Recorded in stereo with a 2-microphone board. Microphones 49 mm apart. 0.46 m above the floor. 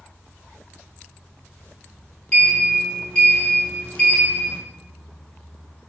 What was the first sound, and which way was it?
A sliding door, 20° left (ahead or behind).